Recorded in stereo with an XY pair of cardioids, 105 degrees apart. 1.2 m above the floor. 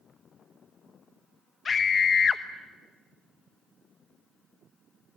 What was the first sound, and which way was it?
A scream, 45° left.